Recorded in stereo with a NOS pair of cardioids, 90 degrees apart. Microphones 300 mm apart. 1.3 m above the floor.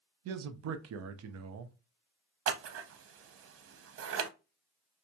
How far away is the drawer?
No drawer in this recording.